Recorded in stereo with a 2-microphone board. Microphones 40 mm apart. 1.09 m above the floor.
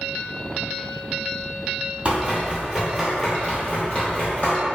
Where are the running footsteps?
35° right (ahead or behind), 1.3 m; by 4.6 s 40° left (ahead or behind), 1.5 m.